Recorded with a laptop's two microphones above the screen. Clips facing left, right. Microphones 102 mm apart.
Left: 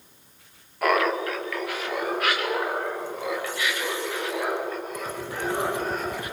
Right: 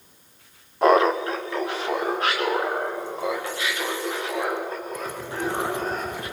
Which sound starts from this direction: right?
Laughter, at 0.8 s.